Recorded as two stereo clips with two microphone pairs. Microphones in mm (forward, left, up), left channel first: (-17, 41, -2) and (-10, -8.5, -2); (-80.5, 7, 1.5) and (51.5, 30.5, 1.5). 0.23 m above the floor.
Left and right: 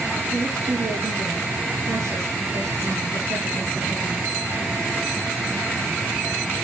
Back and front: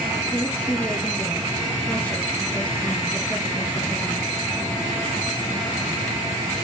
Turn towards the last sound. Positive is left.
turn(degrees=-90)